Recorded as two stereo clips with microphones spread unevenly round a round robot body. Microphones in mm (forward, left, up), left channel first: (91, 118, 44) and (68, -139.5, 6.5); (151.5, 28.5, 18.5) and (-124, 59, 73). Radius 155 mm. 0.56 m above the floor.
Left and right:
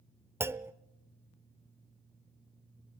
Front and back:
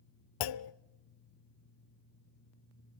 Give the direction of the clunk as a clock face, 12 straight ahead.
12 o'clock.